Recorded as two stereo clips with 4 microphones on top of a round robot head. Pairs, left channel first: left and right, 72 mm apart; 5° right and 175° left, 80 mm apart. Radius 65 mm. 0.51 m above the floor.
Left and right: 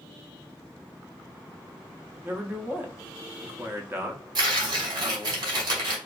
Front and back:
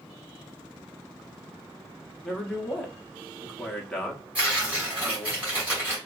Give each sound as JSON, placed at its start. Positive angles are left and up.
{"t": 2.2, "sound": "a man speaking", "azimuth_deg": -85, "distance_m": 0.7}
{"t": 4.3, "sound": "tearing paper", "azimuth_deg": -110, "distance_m": 1.3}